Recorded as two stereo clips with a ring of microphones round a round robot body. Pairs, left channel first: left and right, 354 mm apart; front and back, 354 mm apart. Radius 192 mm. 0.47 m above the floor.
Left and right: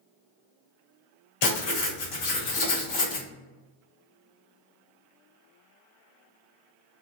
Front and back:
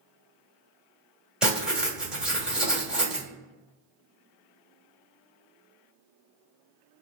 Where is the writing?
95° left, 1.2 m.